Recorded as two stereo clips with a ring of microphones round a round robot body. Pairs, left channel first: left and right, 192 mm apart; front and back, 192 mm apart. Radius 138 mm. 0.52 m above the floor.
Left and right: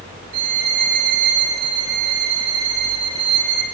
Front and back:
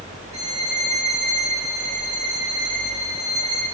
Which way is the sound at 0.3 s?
105° right.